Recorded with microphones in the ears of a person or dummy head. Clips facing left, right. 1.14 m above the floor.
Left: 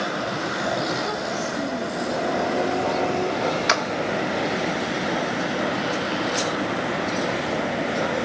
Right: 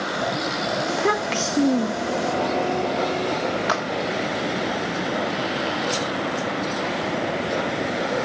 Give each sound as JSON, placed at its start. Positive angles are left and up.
{"t": 0.9, "sound": "a child speaking", "side_deg": -75, "distance_m": 0.6}
{"t": 3.7, "sound": "a clap", "side_deg": 35, "distance_m": 1.5}